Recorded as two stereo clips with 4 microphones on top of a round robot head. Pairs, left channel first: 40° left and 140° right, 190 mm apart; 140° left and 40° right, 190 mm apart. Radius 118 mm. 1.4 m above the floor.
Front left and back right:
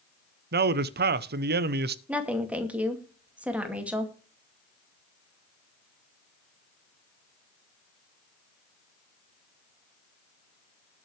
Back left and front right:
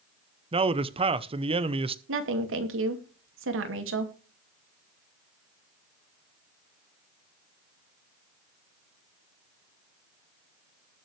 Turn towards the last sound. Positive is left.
turn(degrees=-55)